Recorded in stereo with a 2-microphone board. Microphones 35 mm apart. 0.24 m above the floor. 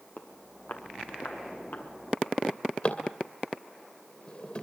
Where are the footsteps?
55° left (ahead or behind), 3.5 m; by 2.4 s 75° left (ahead or behind), 4 m.